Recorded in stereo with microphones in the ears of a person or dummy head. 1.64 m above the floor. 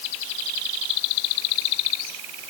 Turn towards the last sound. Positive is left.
No sound to turn to.